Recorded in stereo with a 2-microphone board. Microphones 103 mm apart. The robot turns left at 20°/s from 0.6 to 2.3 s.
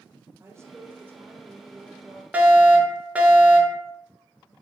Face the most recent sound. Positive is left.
turn(degrees=-15)  # may be behind; listen again after turning